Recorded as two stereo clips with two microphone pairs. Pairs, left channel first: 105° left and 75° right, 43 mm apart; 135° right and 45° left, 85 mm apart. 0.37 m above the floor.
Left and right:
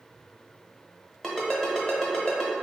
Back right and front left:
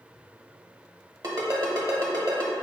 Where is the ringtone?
25° left, 1.0 m.